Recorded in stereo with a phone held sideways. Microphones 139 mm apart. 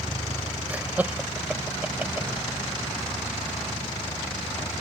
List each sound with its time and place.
0.7 s laughter: 10° right (ahead or behind)